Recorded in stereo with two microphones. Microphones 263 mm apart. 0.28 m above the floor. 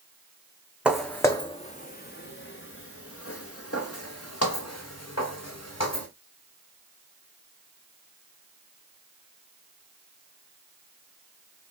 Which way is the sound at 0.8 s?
5° right (ahead or behind).